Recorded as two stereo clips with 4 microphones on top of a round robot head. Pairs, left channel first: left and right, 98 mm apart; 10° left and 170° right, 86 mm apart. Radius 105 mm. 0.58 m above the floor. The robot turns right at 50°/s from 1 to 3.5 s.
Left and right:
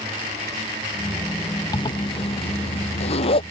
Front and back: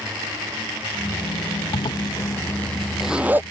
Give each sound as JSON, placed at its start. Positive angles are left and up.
{"t": 1.7, "sound": "a zipper", "azimuth_deg": 40}